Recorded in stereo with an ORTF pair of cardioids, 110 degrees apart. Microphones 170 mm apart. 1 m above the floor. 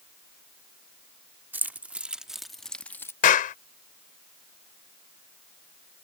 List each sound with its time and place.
1.5 s keys jangling: 10° right; by 3.1 s 15° left
3.2 s a clap: 55° left